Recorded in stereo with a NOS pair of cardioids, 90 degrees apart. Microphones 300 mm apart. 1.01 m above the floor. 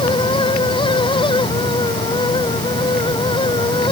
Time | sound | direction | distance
0.0 | a fan | 15° left | ?